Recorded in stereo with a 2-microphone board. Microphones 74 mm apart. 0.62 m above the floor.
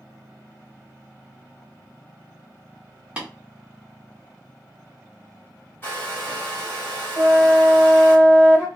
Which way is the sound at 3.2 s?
15° right (ahead or behind).